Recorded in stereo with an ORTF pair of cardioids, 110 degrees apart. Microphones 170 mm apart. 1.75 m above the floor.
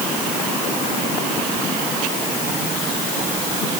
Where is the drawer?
I don't hear a drawer.